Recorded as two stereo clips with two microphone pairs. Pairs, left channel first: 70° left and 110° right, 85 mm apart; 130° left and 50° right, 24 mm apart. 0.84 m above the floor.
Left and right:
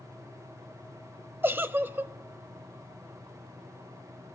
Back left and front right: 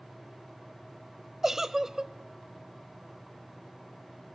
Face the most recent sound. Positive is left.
turn(degrees=-90)